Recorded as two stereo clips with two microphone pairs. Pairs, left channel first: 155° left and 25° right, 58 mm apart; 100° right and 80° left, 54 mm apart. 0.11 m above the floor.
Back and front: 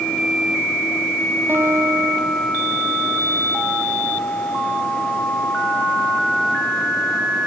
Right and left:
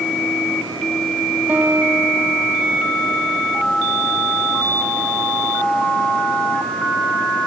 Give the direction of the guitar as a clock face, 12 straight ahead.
11 o'clock.